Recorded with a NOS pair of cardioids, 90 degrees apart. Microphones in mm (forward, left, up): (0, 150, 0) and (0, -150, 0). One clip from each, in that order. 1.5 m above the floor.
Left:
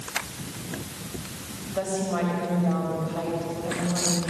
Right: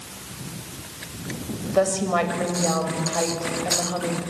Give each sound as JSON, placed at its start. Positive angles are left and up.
{"t": 1.7, "sound": "a woman speaking", "azimuth_deg": -55, "distance_m": 6.5}